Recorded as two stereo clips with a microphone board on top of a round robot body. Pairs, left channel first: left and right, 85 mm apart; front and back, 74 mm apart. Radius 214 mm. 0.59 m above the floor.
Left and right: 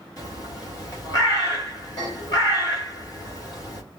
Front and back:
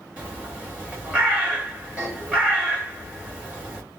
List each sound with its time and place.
0.2 s a bird: 110° left, 1.7 m